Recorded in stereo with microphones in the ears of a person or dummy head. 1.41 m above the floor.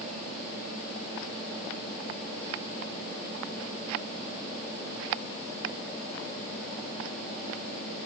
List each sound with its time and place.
Only background noise.